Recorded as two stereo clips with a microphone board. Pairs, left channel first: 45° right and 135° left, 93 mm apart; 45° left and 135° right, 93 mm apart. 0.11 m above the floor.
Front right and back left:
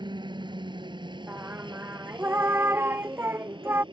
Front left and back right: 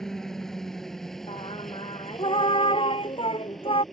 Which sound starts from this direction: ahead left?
Singing, at 1.3 s.